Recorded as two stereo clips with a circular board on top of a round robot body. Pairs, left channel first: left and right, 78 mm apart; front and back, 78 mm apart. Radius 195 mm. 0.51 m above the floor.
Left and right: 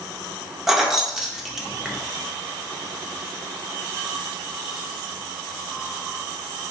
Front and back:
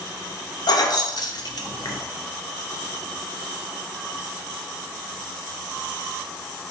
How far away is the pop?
I don't hear a pop.